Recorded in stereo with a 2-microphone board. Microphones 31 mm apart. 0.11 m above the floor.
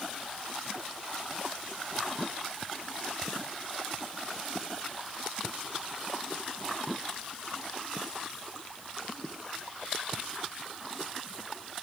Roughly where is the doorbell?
No doorbell in this recording.